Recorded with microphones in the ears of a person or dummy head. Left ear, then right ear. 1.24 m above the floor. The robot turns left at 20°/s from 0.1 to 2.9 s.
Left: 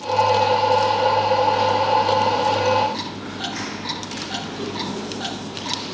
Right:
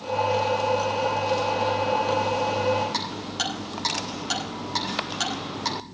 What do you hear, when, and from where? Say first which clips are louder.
2.9 s ticking: right 1 dB; 70° right (ahead or behind), 9 m